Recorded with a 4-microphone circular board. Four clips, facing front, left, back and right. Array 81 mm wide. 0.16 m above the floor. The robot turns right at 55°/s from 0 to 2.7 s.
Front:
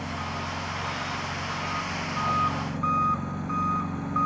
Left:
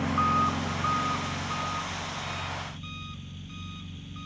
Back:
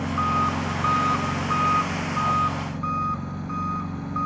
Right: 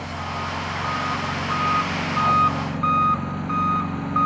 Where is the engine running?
125° left; by 4.3 s 85° right.